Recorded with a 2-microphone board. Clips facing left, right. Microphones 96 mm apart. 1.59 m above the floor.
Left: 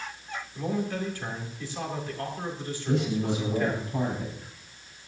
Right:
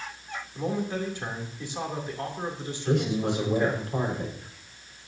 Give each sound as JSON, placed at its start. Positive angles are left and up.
{"t": 0.6, "sound": "a man speaking", "side_deg": -20, "distance_m": 3.0}
{"t": 2.9, "sound": "a man speaking", "side_deg": -70, "distance_m": 5.5}